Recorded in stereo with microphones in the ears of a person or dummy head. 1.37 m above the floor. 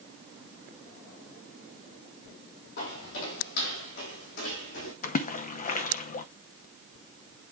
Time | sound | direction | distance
2.8 | footsteps | 60° left (ahead or behind) | 3 m
5.0 | a splash | 45° left (ahead or behind) | 0.6 m